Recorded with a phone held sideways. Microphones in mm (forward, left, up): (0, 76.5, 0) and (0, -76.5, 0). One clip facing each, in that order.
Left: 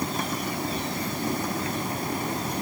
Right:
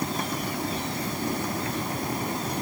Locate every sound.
Only background noise.